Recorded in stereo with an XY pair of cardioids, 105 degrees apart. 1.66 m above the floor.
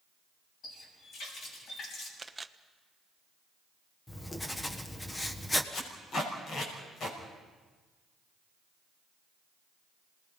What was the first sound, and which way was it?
A running tap, 60° left.